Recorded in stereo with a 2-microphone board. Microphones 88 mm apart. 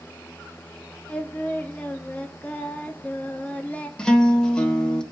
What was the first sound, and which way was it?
Singing, 15° left (ahead or behind).